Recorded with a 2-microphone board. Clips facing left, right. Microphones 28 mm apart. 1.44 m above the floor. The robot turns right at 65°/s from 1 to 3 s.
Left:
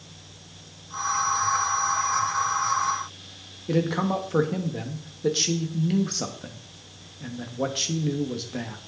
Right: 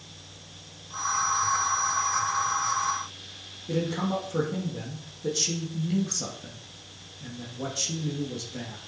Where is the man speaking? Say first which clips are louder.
Left 4 dB; 30° left (ahead or behind), 1.7 m.